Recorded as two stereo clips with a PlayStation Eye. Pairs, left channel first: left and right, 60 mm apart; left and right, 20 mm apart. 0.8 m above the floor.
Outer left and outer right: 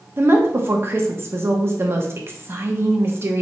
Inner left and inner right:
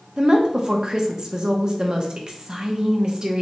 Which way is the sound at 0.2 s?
40° right (ahead or behind).